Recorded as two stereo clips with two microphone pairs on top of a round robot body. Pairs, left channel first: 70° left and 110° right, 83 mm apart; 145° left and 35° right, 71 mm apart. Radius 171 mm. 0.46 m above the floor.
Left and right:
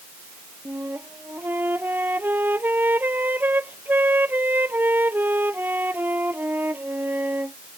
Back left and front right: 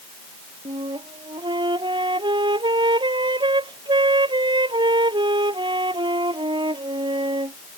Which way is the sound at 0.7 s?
45° right.